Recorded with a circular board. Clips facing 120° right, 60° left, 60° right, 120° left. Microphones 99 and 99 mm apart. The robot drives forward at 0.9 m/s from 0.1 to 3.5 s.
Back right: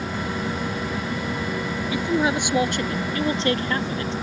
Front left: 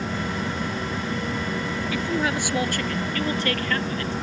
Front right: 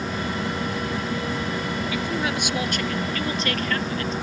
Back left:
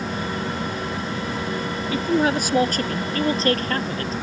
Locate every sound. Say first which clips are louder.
1.9 s a man speaking: back right 4 dB, back left 9 dB; 170° left; by 4.1 s 175° left